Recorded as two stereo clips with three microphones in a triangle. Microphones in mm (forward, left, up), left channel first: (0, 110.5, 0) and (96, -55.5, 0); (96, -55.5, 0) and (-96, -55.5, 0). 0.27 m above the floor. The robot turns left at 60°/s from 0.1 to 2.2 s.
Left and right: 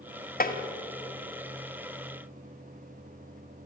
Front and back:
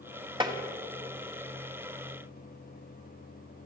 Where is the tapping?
125° left, 1.6 m; by 0.6 s 115° left, 1.6 m.